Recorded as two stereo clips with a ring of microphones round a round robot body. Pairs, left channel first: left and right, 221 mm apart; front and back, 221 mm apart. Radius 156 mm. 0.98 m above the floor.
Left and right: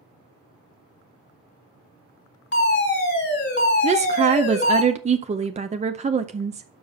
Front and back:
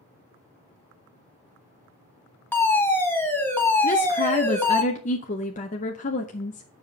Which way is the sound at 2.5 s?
75° left.